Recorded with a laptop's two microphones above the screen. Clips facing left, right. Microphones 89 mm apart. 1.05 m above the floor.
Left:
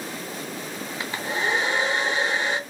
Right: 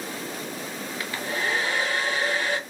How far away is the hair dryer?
About 0.7 m.